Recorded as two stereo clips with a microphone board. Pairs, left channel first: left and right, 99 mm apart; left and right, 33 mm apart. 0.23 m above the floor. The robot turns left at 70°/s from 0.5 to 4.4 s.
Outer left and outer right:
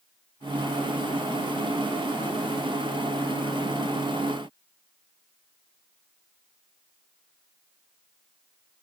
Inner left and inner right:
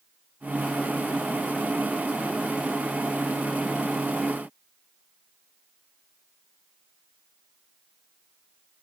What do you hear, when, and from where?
Only background noise.